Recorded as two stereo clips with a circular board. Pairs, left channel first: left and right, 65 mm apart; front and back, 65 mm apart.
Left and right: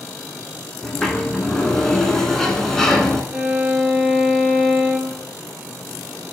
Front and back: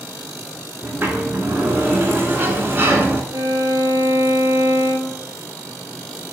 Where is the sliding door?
165° left, 0.6 m.